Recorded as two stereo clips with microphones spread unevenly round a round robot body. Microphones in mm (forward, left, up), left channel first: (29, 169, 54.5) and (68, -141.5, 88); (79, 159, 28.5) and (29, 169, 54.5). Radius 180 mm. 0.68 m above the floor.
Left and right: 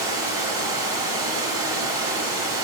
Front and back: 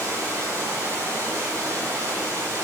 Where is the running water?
160° right, 1.4 m.